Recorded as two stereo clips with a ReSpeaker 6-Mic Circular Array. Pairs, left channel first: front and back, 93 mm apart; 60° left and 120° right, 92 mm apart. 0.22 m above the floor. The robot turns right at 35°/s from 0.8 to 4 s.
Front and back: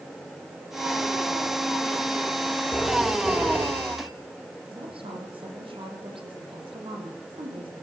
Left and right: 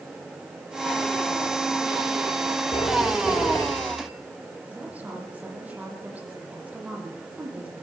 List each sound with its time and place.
2.7 s a phone ringing: 85° left, 4 m; by 4.1 s 130° left, 4 m
4.7 s a woman speaking: 165° left, 8.5 m